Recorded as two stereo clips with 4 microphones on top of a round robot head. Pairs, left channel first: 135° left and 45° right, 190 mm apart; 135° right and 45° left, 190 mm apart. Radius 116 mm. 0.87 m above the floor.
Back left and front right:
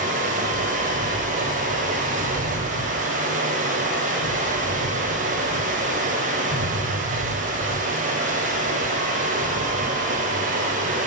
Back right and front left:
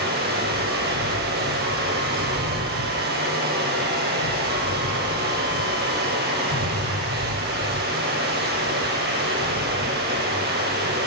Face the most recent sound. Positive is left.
turn(degrees=5)